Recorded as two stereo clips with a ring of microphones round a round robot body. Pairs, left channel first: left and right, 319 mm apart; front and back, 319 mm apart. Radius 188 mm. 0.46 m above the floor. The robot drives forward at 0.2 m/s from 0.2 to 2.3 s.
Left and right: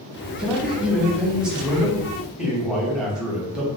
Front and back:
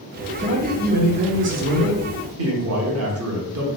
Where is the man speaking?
170° right, 0.7 m; by 3.7 s 175° right, 0.9 m.